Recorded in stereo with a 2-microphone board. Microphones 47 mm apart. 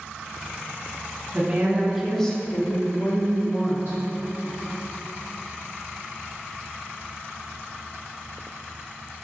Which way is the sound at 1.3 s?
30° right (ahead or behind).